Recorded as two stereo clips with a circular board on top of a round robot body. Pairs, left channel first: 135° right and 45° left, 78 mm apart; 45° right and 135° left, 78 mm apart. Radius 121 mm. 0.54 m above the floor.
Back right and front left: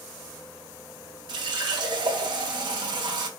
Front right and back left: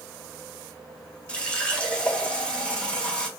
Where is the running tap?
30° left, 1.4 m.